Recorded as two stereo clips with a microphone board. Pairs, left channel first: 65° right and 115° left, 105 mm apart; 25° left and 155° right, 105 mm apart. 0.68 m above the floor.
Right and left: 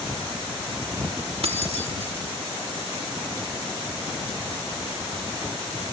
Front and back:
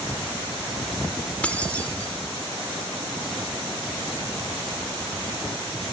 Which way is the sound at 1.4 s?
100° left.